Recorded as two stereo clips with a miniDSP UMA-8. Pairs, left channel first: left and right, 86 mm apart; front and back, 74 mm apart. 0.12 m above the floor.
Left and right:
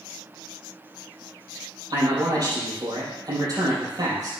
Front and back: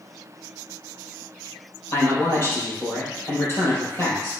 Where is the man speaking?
55° right, 4.5 m.